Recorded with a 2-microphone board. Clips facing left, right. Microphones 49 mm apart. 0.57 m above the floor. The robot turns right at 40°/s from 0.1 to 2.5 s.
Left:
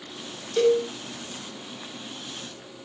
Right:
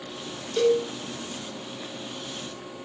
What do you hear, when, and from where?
0.6 s a cowbell: 10° left (ahead or behind), 1.1 m; by 0.8 s 20° left (ahead or behind), 1.1 m